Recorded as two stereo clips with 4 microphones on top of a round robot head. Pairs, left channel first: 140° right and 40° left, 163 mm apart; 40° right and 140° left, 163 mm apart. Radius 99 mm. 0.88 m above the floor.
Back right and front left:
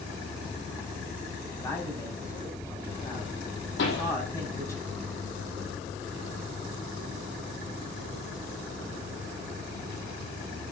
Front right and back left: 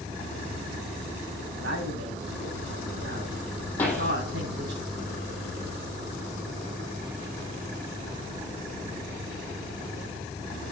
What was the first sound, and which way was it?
A man speaking, 150° left.